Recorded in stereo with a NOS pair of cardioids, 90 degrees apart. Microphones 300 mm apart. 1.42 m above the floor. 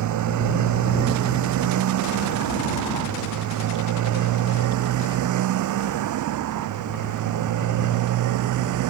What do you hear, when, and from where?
0.0 s a motorcycle: 70° right; by 8.9 s 80° right